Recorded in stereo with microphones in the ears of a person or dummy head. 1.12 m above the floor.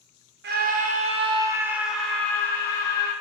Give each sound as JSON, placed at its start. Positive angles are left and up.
{"t": 0.4, "sound": "a scream", "side_deg": -50, "distance_m": 0.9}